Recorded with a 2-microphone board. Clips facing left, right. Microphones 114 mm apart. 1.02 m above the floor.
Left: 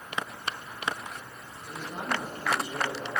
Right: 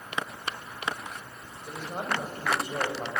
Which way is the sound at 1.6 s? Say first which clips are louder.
Right 1 dB; 40° right (ahead or behind).